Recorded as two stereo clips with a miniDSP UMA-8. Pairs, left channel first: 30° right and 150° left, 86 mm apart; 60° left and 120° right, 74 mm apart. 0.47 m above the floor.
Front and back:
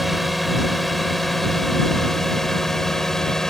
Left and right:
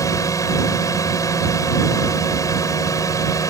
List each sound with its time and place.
0.0 s a drone: 60° left; by 3.5 s 55° left